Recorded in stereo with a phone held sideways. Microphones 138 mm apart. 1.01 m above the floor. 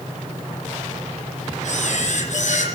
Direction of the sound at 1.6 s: 60° left (ahead or behind).